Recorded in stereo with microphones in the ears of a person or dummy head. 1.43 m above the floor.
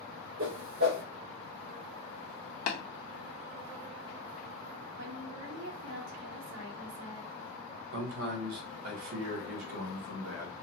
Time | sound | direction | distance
0.4 | a whoosh | 60° right (ahead or behind) | 1.7 m
2.7 | tapping | 65° left (ahead or behind) | 1.1 m
5.0 | a woman speaking | 70° right (ahead or behind) | 1.6 m
7.9 | a man speaking | 75° right (ahead or behind) | 1.2 m